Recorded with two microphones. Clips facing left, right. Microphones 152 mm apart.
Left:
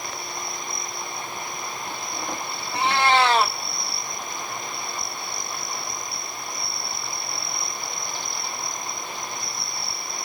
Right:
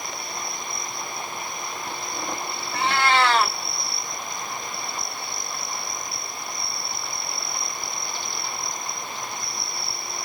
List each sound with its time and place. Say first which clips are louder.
2.7 s a cat meowing: left 2 dB; 20° left (ahead or behind), 1.5 m